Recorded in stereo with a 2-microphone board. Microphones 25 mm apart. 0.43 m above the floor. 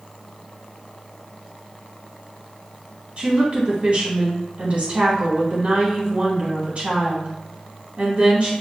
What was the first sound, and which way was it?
A woman speaking, 50° right (ahead or behind).